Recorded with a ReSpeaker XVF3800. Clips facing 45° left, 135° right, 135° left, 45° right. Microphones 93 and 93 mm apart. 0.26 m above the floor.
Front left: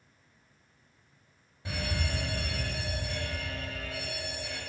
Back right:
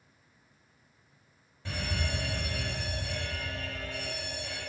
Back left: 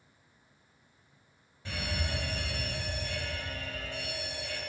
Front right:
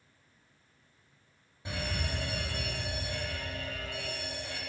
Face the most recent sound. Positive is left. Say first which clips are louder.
# even, even
turn(degrees=-10)